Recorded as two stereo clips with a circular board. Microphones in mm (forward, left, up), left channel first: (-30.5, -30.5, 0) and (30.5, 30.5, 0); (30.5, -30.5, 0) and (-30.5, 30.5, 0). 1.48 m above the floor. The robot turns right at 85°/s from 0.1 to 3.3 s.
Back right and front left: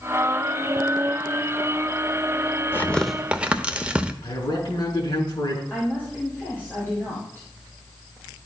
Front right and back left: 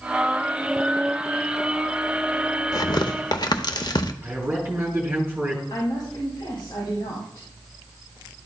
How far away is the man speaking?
About 3 m.